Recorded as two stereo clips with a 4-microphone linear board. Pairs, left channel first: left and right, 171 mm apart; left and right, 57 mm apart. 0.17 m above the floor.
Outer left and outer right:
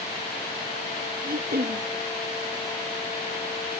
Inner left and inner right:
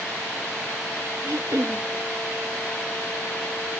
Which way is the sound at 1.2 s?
65° right (ahead or behind).